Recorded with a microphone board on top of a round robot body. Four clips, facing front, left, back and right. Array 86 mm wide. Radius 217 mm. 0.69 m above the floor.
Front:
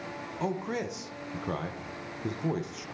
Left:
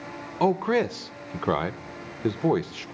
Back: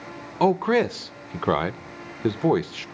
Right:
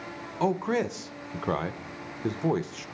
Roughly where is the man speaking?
Behind.